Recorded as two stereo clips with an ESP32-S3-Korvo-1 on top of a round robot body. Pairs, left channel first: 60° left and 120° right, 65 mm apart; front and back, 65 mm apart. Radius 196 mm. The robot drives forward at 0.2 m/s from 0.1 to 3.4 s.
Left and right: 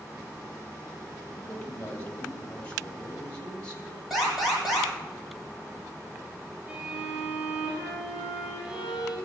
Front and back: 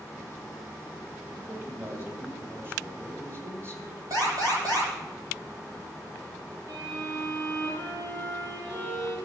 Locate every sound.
1.4 s a man speaking: 125° left, 4 m; by 4.0 s 130° left, 4 m
4.1 s an alarm: 150° left, 10 m
6.7 s a violin: 165° left, 7.5 m